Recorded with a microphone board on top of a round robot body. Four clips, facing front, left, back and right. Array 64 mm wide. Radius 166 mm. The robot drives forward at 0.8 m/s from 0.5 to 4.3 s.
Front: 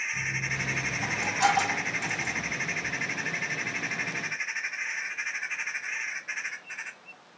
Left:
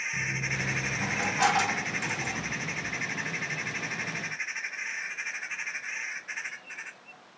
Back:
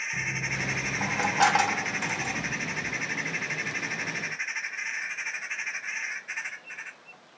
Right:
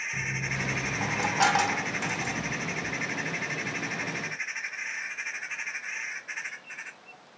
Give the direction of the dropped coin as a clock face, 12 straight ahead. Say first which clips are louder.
Even, even; 5 o'clock.